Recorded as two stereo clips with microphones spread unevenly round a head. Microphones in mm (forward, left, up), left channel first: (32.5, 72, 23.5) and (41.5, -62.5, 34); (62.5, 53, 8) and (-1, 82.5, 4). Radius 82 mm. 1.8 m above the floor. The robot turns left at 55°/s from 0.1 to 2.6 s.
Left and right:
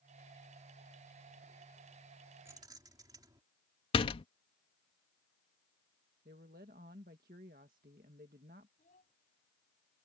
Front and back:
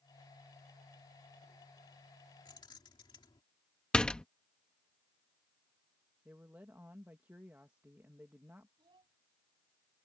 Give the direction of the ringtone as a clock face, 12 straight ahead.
No ringtone in this recording.